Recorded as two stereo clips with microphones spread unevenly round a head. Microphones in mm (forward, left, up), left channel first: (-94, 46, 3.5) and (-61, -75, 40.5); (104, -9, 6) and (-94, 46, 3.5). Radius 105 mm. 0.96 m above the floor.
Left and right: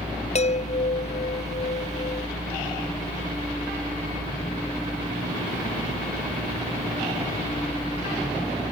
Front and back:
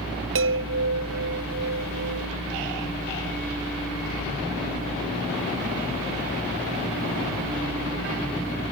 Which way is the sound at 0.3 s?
140° left.